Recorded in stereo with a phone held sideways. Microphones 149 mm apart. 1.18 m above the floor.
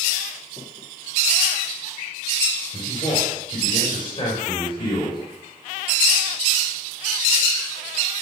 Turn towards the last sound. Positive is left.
turn(degrees=35)  # may be behind; listen again after turning